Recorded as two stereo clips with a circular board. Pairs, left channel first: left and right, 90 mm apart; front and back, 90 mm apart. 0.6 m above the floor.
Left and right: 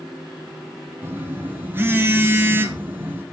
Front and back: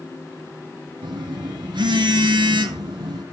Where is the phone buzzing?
155° right, 1.1 m.